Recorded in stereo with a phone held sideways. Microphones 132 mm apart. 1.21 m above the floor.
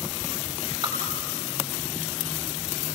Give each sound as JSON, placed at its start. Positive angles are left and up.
{"t": 0.8, "sound": "dripping", "side_deg": -30, "distance_m": 8.0}